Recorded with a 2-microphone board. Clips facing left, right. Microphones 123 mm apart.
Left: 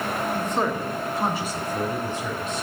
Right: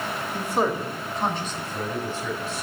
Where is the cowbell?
I don't hear a cowbell.